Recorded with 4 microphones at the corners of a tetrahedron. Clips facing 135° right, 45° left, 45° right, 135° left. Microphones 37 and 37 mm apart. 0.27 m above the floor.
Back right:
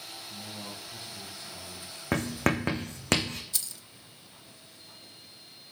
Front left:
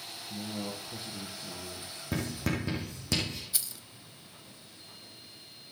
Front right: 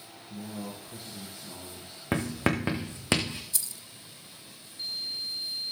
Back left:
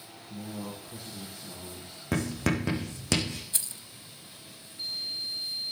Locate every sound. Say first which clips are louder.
0.3 s a man speaking: front left 6 dB, even; 35° left, 3.5 m
2.1 s writing: back right 6 dB, front right 1 dB; 105° right, 3 m
3.5 s keys jangling: even, back left 1 dB; 115° left, 0.8 m